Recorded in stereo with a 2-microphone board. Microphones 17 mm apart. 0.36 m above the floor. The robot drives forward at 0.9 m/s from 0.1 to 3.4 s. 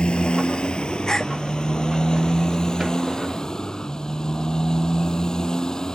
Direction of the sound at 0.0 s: 70° left (ahead or behind).